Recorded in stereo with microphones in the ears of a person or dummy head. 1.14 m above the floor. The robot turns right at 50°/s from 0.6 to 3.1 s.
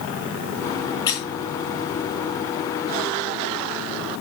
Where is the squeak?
15° left (ahead or behind), 2 m; by 1.2 s 5° left (ahead or behind), 2 m.